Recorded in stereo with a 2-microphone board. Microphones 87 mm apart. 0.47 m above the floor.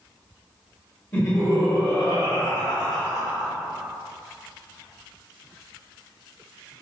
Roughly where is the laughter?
Left.